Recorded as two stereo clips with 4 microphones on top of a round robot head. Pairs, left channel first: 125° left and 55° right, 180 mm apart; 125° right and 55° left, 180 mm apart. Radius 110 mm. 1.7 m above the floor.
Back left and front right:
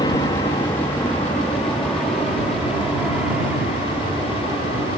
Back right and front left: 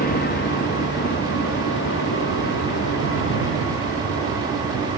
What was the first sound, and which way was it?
An aircraft, 165° right.